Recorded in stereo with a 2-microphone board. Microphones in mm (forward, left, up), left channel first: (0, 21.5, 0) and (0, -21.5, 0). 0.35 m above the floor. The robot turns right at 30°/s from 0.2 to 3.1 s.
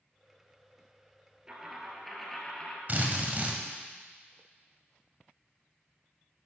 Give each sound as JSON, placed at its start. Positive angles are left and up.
{"t": 1.5, "sound": "a dropped coin", "azimuth_deg": -15, "distance_m": 1.8}
{"t": 2.9, "sound": "a drill", "side_deg": -35, "distance_m": 1.6}